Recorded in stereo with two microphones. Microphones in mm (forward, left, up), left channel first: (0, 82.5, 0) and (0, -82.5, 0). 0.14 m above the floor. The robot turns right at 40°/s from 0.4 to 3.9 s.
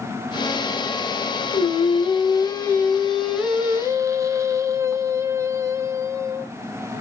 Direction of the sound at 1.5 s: 110° left.